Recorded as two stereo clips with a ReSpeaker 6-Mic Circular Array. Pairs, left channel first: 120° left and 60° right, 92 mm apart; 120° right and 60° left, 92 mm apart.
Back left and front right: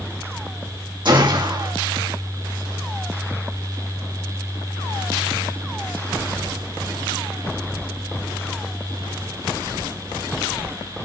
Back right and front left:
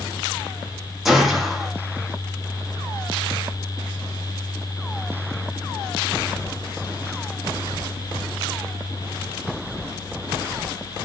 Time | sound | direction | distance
1.1 | a gunshot | 25° right | 4 m